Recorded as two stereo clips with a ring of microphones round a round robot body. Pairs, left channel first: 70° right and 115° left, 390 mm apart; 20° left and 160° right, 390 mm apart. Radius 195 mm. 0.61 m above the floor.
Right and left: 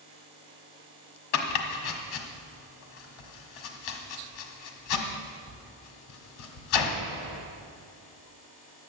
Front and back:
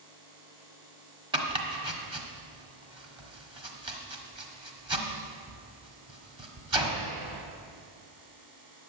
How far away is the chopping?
About 1.5 m.